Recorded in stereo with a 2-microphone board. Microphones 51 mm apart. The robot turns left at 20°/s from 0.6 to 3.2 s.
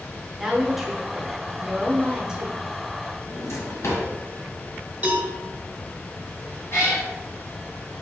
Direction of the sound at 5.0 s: 25° right (ahead or behind).